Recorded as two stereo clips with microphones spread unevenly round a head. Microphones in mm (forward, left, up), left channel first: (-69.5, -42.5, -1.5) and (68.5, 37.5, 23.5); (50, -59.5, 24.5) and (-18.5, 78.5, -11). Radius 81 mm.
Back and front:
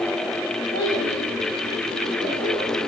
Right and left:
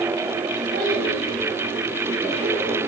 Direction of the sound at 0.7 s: 155° left.